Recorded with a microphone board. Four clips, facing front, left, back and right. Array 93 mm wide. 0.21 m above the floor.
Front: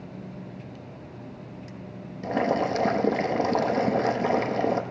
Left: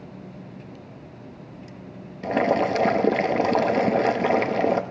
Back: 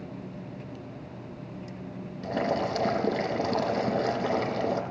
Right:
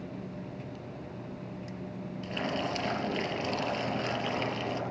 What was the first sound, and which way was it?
Boiling, 80° left.